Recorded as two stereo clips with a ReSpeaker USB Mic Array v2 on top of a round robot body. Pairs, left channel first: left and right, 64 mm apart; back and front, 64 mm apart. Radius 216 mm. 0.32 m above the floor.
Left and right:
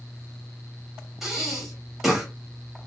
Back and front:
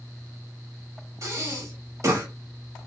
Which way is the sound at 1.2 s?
5° right.